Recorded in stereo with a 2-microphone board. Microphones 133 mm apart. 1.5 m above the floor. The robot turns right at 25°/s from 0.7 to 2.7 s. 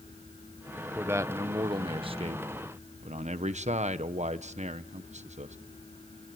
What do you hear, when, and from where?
0.9 s a man speaking: 165° right, 0.9 m; by 5.6 s 120° right, 0.9 m